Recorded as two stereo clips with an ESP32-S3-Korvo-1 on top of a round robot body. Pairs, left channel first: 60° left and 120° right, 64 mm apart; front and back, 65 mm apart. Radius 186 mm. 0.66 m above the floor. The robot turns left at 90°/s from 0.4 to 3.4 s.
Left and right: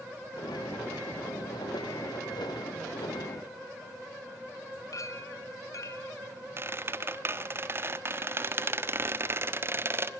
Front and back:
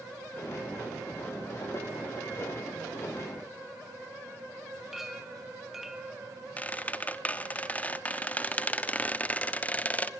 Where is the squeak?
70° right, 1.2 m.